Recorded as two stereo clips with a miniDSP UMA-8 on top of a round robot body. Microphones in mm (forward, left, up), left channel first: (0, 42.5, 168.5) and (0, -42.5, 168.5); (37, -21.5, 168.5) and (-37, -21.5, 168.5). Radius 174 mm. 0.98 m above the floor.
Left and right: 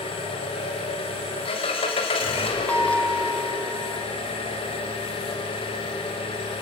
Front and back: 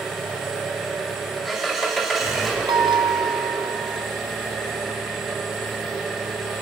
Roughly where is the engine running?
Left.